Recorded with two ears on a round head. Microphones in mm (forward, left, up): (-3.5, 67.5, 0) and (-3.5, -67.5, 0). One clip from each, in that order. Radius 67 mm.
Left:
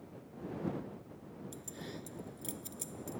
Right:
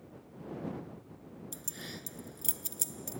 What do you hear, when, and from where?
1.5 s keys jangling: 45° right (ahead or behind)